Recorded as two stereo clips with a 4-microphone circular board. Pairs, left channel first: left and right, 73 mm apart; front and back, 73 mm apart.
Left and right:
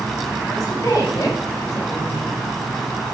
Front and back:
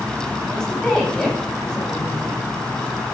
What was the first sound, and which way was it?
A woman speaking, 80° left.